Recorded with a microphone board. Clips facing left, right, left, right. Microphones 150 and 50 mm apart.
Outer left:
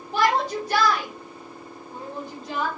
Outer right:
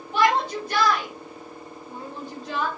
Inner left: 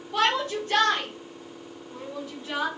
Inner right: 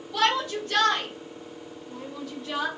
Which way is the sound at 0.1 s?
40° left (ahead or behind).